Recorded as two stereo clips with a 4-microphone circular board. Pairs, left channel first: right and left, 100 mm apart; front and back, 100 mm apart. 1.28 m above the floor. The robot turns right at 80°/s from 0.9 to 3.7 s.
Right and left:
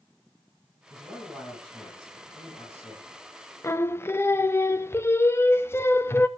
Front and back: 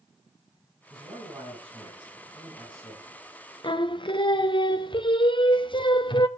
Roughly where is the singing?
Ahead right.